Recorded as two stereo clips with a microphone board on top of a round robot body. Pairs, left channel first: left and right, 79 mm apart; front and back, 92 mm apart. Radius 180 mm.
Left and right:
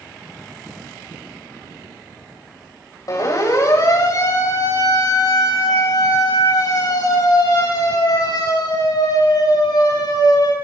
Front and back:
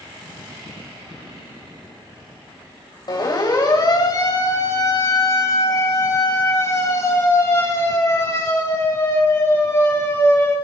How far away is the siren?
About 8 m.